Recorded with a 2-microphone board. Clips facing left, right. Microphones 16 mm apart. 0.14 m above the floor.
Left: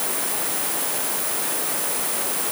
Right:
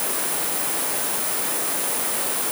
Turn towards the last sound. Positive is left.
No sound to turn to.